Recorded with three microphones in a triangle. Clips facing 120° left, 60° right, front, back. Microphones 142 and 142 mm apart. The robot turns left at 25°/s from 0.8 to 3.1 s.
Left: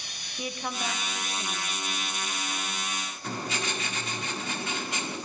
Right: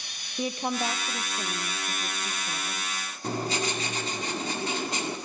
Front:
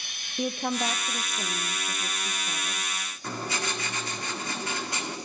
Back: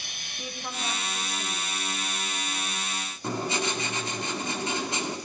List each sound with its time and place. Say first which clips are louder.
0.4 s a woman speaking: right 5 dB, front 9 dB; 5° right, 0.9 m; by 2.9 s 60° right, 0.9 m
3.2 s writing: right 5 dB, back 4 dB; 115° right, 1.9 m